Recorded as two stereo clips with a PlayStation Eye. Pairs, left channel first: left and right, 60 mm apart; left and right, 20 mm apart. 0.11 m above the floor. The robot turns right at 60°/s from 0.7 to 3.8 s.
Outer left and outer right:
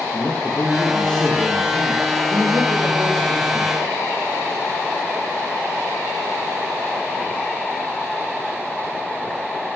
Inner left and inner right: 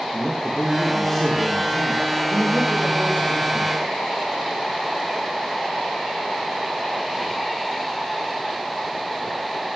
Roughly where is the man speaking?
Behind left.